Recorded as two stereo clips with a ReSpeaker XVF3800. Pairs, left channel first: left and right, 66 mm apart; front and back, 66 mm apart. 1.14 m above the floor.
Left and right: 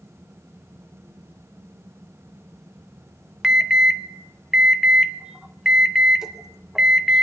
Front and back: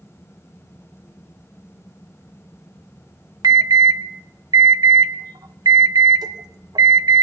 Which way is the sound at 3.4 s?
170° right.